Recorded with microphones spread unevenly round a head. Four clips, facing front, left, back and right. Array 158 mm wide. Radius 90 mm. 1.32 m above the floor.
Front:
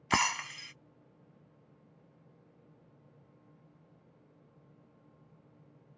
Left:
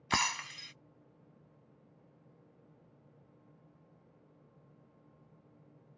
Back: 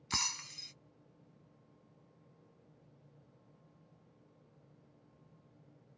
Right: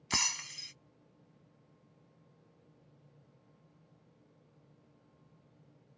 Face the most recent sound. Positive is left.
turn(degrees=20)